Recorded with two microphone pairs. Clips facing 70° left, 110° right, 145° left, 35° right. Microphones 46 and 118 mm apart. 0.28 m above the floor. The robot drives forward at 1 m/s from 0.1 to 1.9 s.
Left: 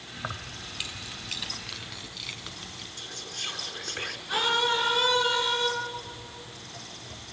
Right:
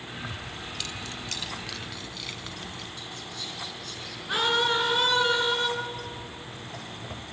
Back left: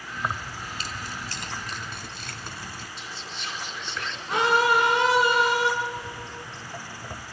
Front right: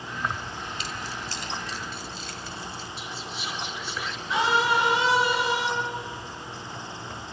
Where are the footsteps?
Straight behind, 2 m; by 7.2 s 150° right, 1.3 m.